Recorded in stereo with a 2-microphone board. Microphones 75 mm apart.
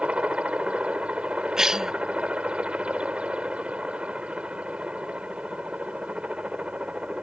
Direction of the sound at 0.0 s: 15° right (ahead or behind).